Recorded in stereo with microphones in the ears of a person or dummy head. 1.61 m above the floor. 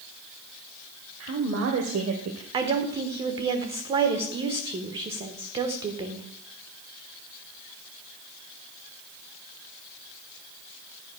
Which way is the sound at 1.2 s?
85° right.